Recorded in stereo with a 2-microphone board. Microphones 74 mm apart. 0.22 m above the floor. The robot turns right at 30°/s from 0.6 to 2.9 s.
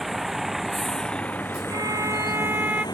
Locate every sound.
0.0 s a vehicle: centre (ahead or behind); by 3.0 s 60° left (ahead or behind)
1.7 s a violin: 50° right; by 2.9 s 15° right